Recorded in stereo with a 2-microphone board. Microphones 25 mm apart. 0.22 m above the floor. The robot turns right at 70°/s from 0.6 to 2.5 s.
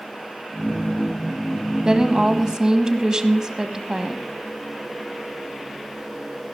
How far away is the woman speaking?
About 1.6 m.